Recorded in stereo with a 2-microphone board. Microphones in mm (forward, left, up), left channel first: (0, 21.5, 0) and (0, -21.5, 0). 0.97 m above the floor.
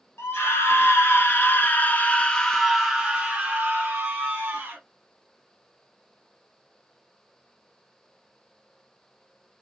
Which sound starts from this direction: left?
A scream, at 0.2 s.